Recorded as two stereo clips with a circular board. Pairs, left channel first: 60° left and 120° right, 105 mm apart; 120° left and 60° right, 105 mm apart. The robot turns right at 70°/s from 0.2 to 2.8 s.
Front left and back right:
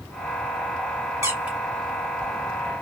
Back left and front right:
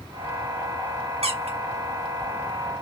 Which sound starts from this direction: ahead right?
A squeak, at 1.2 s.